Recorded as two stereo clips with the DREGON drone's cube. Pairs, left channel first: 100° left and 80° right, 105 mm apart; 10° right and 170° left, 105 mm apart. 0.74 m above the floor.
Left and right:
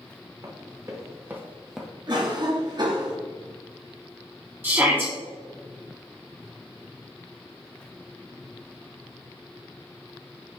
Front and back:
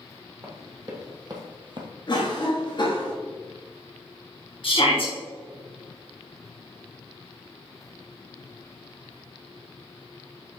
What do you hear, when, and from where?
0.4 s running footsteps: 135° right, 2.5 m; by 1.9 s 175° right, 1.0 m
2.1 s a cough: 45° right, 1.3 m
4.6 s a shout: 15° right, 1.8 m